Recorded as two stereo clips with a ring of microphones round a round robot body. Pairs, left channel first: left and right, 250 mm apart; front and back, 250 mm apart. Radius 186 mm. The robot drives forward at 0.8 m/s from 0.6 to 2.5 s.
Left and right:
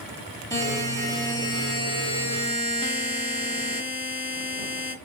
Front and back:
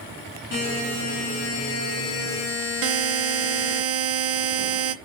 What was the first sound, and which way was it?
A buzzer, 10° left.